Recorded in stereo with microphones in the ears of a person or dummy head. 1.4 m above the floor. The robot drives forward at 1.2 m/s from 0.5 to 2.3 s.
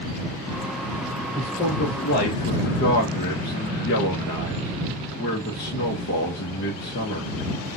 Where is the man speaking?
35° left (ahead or behind), 2.5 m; by 7.3 s 60° left (ahead or behind), 1.5 m.